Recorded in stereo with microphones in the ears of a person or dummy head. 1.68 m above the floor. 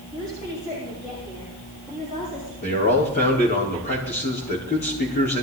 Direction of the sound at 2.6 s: 45° left (ahead or behind).